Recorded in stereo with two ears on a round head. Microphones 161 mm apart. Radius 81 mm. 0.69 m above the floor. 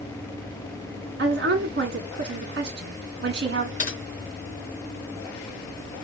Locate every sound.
1.2 s a woman speaking: 60° right (ahead or behind), 1.2 m
3.8 s typing on a keyboard: 45° left (ahead or behind), 1.9 m